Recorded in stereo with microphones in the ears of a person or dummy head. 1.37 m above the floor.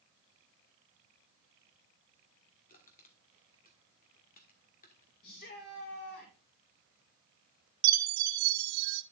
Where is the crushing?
40° left (ahead or behind), 1.6 m.